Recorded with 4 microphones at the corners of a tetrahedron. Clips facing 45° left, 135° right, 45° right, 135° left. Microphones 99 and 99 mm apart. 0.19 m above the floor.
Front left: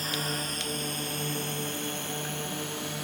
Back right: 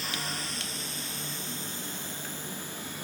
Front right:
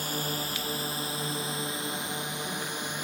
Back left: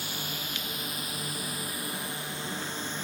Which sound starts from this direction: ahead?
A drone, at 0.0 s.